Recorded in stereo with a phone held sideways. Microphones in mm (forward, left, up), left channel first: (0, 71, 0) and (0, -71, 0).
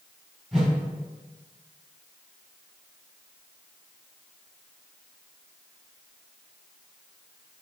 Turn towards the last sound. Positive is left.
turn(degrees=-5)  # may be behind; listen again after turning